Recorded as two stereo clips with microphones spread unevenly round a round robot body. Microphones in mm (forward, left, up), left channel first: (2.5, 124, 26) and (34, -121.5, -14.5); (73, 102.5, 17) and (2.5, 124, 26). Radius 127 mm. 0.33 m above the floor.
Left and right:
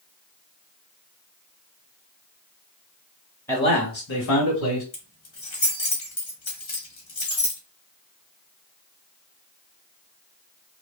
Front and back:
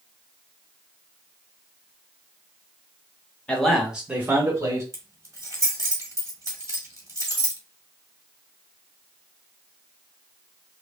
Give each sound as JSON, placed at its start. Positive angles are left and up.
{"t": 3.5, "sound": "a man speaking", "azimuth_deg": 10, "distance_m": 1.0}
{"t": 4.9, "sound": "keys jangling", "azimuth_deg": 120, "distance_m": 1.6}